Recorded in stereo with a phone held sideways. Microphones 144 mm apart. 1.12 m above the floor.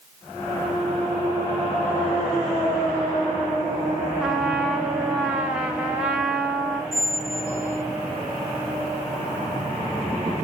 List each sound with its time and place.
4.2 s a trumpet: 5° right (ahead or behind), 1.0 m
6.9 s a squeak: 15° left (ahead or behind), 0.7 m